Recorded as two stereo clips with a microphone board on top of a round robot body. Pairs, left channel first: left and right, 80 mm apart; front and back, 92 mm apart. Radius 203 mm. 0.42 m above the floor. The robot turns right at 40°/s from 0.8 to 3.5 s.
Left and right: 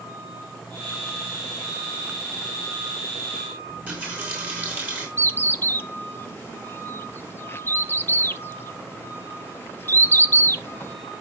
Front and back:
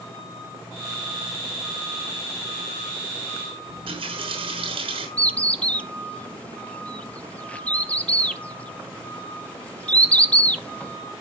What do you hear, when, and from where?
3.7 s a running tap: 160° right, 6 m
5.2 s a bird: 65° left, 1.2 m